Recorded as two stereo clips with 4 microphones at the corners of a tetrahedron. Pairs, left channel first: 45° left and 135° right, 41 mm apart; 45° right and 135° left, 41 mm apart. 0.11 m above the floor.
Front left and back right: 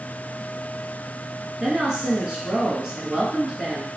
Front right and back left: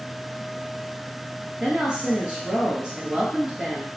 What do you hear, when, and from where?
1.6 s a woman speaking: 170° left, 1.6 m